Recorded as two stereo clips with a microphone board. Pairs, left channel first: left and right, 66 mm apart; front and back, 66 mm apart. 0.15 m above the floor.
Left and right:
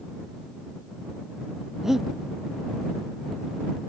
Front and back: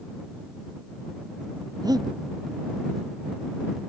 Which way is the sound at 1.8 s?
175° right.